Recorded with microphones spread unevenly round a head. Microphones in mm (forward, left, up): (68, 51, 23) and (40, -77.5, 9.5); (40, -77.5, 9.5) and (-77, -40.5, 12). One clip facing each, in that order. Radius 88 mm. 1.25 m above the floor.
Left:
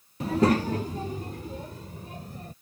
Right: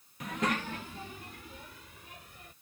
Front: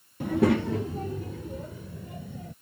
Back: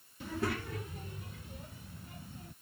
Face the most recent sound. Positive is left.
turn(degrees=30)